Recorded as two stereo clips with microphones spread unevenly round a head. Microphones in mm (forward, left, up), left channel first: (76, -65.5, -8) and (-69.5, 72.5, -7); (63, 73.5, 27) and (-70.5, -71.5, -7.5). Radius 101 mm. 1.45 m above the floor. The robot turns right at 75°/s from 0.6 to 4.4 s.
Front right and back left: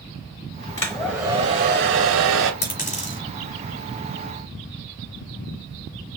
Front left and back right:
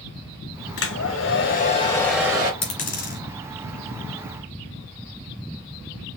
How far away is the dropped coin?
About 3 m.